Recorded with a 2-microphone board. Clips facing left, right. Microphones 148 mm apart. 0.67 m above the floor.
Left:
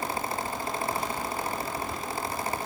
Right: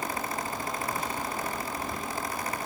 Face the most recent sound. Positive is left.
No sound to turn to.